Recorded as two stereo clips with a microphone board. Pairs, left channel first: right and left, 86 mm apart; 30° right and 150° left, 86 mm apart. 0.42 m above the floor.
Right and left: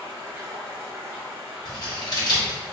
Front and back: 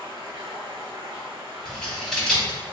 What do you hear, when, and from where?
0.0 s running water: 155° left, 1.5 m
1.6 s scissors: 115° right, 1.4 m